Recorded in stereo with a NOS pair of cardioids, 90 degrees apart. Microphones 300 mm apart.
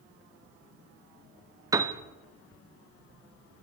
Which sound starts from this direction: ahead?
A piano, at 1.7 s.